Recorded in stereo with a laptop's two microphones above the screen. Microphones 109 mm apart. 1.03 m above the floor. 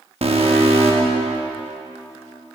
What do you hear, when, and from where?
0.2 s an alarm: 65° right (ahead or behind), 1.0 m